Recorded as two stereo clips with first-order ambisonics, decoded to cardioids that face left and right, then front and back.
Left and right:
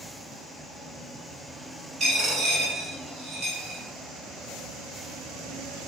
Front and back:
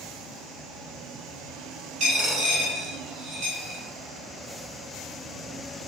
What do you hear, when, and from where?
2.0 s a dropped coin: 140° right, 1.4 m